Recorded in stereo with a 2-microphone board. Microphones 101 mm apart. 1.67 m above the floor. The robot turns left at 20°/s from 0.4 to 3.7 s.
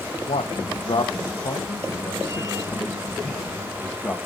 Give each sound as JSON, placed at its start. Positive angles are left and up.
{"t": 0.3, "sound": "a man speaking", "side_deg": 75, "distance_m": 0.8}